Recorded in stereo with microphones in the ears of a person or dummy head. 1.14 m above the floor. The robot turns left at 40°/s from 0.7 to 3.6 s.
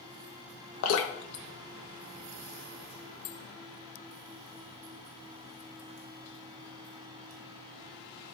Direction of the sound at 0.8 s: 70° left (ahead or behind).